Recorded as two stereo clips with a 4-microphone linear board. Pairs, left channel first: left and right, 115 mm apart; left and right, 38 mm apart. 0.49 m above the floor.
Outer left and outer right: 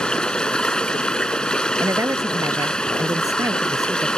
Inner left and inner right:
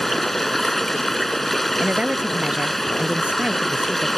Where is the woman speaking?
30° right (ahead or behind).